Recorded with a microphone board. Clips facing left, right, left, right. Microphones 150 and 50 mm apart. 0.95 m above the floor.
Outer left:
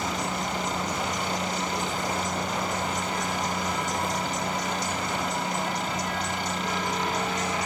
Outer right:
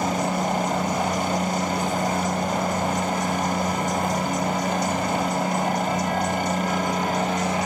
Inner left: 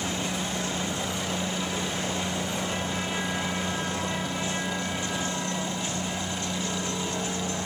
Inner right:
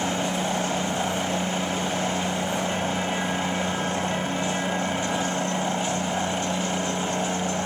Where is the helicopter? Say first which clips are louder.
Outer right 6 dB, inner right 5 dB; 45° right (ahead or behind).